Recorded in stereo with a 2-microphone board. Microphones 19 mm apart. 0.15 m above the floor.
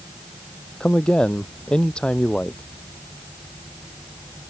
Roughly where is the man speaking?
Left.